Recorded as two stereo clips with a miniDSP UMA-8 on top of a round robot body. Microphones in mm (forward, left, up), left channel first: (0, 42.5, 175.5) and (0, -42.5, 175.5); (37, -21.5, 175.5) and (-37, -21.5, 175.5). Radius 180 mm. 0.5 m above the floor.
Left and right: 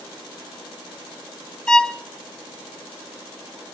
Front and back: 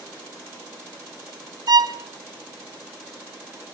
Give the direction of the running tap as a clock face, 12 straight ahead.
No running tap in this recording.